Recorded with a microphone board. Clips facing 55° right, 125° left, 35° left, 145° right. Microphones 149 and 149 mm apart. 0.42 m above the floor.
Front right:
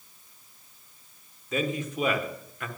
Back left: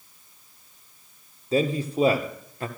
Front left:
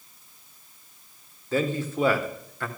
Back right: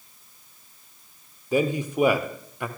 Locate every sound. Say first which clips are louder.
1.5 s a man speaking: back left 6 dB, back right 3 dB; 150° left, 0.9 m